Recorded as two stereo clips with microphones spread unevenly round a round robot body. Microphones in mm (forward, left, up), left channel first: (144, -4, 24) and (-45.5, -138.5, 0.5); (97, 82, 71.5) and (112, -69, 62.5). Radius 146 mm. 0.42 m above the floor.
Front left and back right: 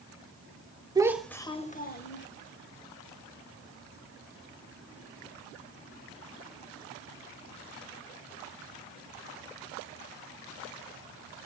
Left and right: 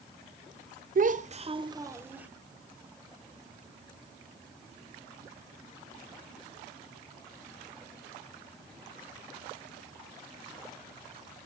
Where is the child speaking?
75° right, 1.4 m; by 2.3 s 5° right, 2 m.